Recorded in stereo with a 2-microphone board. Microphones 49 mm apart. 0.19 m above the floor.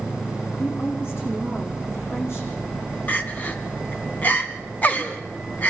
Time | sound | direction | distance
0.6 | a woman speaking | 55° left (ahead or behind) | 10 m
3.1 | crying | 35° left (ahead or behind) | 1.9 m